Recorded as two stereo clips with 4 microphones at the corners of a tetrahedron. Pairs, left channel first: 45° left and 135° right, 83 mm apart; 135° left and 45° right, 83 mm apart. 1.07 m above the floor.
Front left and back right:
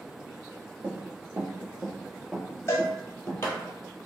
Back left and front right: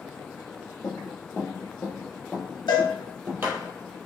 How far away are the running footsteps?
About 1.8 m.